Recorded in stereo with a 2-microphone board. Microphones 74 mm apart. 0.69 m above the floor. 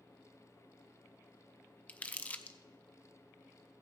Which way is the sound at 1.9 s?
20° left (ahead or behind).